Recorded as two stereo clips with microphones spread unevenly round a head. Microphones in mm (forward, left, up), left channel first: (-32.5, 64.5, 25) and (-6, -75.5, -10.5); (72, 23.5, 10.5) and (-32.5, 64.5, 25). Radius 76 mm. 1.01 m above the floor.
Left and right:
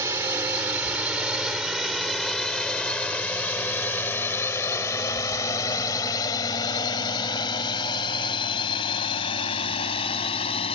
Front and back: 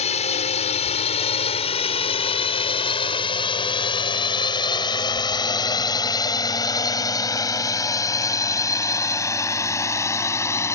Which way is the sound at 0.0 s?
5° right.